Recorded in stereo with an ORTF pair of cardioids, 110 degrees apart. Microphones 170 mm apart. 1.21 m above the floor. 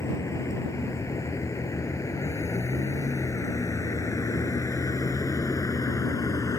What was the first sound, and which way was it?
A vehicle, 15° left.